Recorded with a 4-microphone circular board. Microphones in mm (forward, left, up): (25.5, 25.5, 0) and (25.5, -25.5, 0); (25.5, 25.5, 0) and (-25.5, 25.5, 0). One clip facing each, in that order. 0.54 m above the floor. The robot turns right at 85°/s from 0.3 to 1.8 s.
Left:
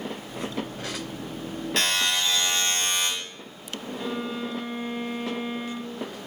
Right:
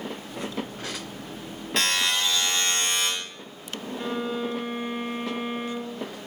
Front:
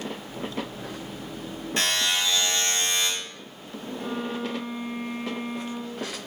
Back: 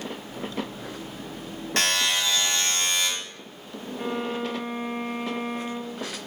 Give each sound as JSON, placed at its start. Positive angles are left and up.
{"t": 1.8, "sound": "a buzzer", "azimuth_deg": 180, "distance_m": 2.5}
{"t": 4.0, "sound": "a violin", "azimuth_deg": -155, "distance_m": 0.8}